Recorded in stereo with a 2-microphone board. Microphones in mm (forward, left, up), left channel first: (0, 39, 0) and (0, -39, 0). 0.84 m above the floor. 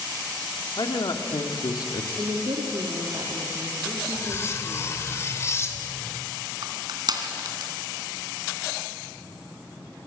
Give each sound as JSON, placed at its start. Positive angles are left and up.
{"t": 0.8, "sound": "a man speaking", "side_deg": 60, "distance_m": 2.0}
{"t": 2.2, "sound": "a woman speaking", "side_deg": -70, "distance_m": 2.0}
{"t": 4.2, "sound": "cutlery clinking", "side_deg": 35, "distance_m": 2.0}
{"t": 6.6, "sound": "crushing", "side_deg": -60, "distance_m": 3.0}